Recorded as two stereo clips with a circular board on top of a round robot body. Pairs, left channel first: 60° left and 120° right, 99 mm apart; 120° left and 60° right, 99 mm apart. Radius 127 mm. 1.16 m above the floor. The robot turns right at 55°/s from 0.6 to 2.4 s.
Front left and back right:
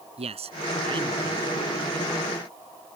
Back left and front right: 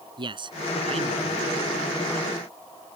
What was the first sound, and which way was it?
A man speaking, 100° right.